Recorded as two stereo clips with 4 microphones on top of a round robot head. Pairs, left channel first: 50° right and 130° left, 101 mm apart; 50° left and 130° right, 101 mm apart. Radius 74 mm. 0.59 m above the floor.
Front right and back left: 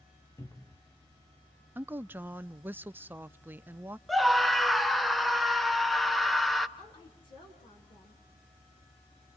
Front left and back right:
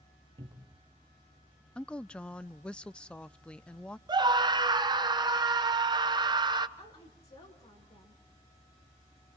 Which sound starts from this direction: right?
A cupboard door, at 0.4 s.